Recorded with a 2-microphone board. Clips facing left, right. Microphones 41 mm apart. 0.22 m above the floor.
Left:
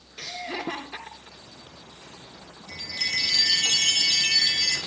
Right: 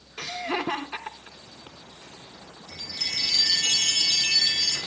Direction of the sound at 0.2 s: 45° right (ahead or behind).